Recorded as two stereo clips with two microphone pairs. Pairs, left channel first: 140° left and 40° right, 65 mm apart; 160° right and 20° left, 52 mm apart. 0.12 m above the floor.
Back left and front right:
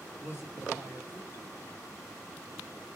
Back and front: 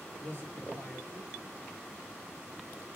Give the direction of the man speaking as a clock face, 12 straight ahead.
6 o'clock.